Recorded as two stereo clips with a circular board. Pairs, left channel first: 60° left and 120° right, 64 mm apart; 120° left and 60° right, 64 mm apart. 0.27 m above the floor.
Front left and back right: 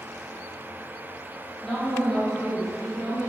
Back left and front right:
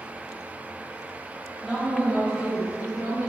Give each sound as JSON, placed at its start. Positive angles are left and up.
{"t": 1.6, "sound": "a woman speaking", "azimuth_deg": 10, "distance_m": 1.0}